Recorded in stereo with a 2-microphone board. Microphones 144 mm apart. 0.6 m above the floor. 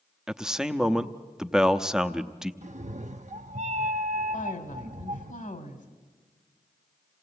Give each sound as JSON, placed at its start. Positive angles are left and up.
{"t": 0.3, "sound": "a man speaking", "side_deg": -5, "distance_m": 0.7}
{"t": 2.6, "sound": "a cat meowing", "side_deg": -55, "distance_m": 0.6}
{"t": 4.3, "sound": "a woman speaking", "side_deg": 65, "distance_m": 1.8}